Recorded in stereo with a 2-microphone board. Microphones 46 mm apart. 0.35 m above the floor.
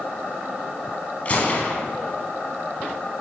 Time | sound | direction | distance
1.2 | a gunshot | 35° left (ahead or behind) | 0.9 m